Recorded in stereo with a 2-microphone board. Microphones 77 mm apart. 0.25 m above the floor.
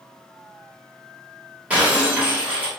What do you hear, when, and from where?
1.7 s breaking glass: 20° right (ahead or behind), 1.8 m